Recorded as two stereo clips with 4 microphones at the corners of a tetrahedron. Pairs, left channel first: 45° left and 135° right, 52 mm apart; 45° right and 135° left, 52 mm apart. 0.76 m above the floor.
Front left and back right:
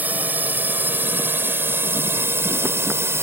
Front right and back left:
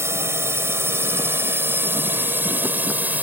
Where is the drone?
170° left; by 3.2 s 170° right.